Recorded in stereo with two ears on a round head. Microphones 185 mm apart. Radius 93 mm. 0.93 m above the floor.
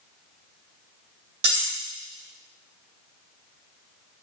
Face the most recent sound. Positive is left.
turn(degrees=-45)  # may be behind; listen again after turning